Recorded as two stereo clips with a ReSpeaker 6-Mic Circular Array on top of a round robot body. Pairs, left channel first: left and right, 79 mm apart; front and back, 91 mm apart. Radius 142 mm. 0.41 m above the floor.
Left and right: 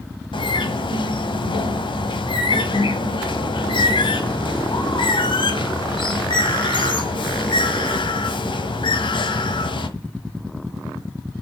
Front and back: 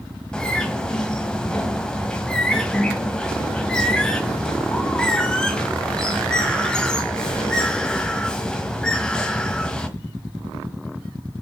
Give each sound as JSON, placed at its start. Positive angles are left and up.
{"t": 0.3, "sound": "a bird", "azimuth_deg": 85, "distance_m": 1.5}